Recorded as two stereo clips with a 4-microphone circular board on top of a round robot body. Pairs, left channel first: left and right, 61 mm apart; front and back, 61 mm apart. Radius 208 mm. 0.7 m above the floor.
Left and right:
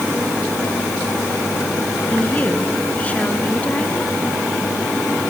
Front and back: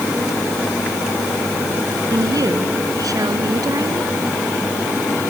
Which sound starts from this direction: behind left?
A woman speaking, at 2.1 s.